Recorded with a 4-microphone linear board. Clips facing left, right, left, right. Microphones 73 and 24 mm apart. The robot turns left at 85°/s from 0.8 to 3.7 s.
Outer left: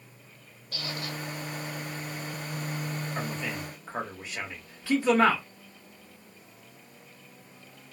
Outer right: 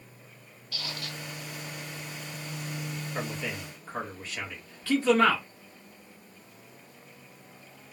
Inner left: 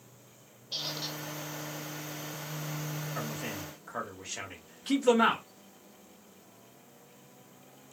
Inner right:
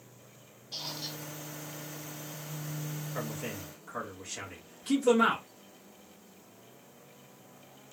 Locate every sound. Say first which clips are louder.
0.7 s a squeak: outer left 3 dB, inner left 3 dB; 60° left, 1.5 m; by 1.2 s 25° left, 1.5 m
3.1 s a man speaking: outer right 2 dB, inner right 1 dB; 20° right (ahead or behind), 1.3 m; by 5.4 s 15° left (ahead or behind), 1.3 m